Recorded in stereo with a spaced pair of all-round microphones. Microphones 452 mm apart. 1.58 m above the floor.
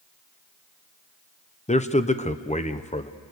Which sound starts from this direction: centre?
A man speaking, at 1.7 s.